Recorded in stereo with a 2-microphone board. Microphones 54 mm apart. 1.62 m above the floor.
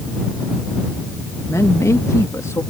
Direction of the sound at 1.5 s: 70° left (ahead or behind).